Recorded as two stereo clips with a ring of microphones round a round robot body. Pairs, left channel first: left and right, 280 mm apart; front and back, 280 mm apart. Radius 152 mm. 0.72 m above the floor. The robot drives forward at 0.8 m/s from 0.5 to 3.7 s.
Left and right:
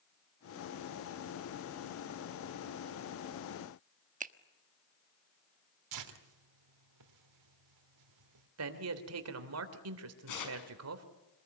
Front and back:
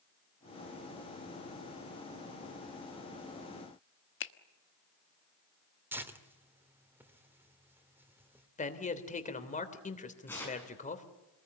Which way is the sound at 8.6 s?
60° right.